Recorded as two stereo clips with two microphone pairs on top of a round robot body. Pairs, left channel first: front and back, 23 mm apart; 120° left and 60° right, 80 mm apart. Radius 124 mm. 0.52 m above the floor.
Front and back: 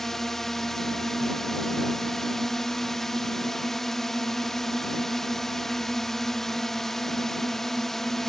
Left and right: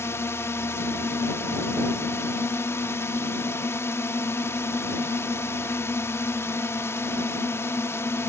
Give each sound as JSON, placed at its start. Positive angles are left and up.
{"t": 0.0, "sound": "a drone", "azimuth_deg": 60}